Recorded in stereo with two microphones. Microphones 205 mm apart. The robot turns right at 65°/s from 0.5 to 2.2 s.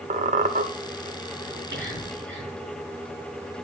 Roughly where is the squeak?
Right.